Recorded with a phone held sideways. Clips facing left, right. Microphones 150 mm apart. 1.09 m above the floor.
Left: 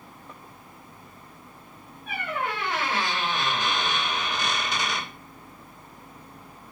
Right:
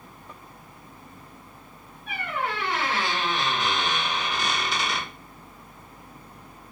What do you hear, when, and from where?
2.1 s a squeak: 50° left (ahead or behind), 2 m